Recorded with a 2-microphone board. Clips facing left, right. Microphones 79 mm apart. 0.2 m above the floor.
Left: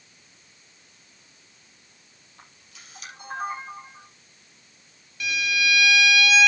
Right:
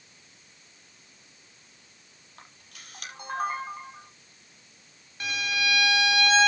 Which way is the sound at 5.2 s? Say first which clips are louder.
Left 3 dB; 40° right (ahead or behind).